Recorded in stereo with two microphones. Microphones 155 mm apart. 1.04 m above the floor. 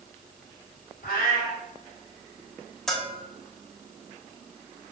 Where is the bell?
5° left (ahead or behind), 0.6 m.